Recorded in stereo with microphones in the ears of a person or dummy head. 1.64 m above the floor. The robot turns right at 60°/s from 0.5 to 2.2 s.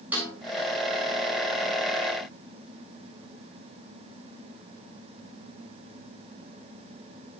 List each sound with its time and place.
0.1 s a snare drum: 5° right (ahead or behind), 10 m